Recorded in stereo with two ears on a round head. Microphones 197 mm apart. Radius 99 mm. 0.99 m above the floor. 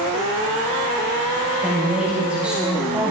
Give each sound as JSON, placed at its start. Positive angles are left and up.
{"t": 1.6, "sound": "a woman speaking", "side_deg": -5, "distance_m": 4.0}